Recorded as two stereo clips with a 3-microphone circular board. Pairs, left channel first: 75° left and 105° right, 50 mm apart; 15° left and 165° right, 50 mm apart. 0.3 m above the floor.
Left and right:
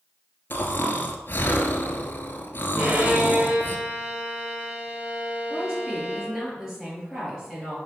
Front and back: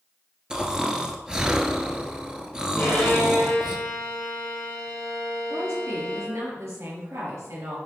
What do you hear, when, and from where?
0.5 s snoring: 120° left, 1.1 m
2.8 s a violin: 45° right, 4 m
5.5 s a woman speaking: 175° left, 5 m